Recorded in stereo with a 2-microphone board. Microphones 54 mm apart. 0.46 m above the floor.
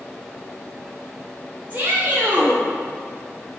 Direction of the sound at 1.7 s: 40° right (ahead or behind).